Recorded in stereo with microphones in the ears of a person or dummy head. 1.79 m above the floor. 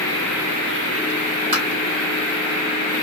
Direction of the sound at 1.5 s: 30° right (ahead or behind).